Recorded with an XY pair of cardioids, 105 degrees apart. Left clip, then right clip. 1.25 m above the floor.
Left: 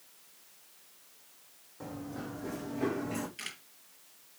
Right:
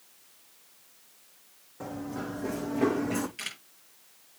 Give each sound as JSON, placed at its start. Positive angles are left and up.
{"t": 1.8, "sound": "running footsteps", "azimuth_deg": -30, "distance_m": 4.0}
{"t": 3.4, "sound": "a camera shutter", "azimuth_deg": -20, "distance_m": 4.0}